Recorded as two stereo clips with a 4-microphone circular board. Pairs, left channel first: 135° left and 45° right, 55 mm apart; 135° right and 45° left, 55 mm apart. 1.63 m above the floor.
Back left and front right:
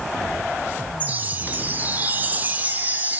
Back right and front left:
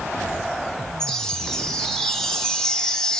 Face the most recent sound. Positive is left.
turn(degrees=-60)